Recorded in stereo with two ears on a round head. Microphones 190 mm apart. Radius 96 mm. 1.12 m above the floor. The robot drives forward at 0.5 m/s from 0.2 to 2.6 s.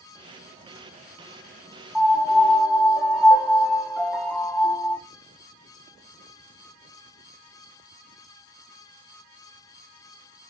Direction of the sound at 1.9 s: 5° right (ahead or behind).